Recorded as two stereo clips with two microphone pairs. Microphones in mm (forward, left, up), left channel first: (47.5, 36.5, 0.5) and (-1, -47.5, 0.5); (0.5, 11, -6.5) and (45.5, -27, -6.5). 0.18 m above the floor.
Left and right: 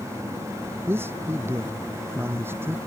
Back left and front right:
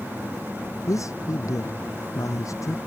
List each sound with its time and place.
0.9 s a man speaking: 175° left